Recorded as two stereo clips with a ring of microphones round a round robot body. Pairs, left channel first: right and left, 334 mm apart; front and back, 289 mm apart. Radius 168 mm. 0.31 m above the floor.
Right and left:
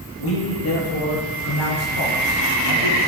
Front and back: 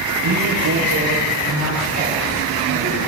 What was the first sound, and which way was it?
A man speaking, 140° right.